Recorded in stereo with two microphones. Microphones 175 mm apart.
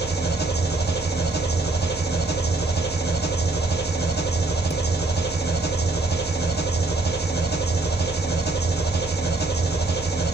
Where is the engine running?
80° left, 2.5 m.